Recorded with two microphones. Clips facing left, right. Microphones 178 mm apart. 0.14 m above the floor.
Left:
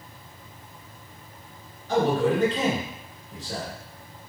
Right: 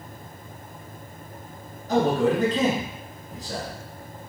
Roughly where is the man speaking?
Right.